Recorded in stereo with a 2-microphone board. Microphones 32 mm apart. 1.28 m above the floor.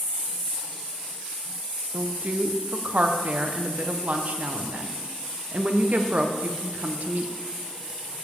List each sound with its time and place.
1.9 s a woman speaking: 55° right (ahead or behind), 0.8 m